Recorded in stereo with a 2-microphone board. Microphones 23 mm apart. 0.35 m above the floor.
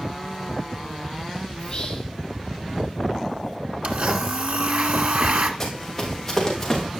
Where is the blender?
70° right (ahead or behind), 1.6 m.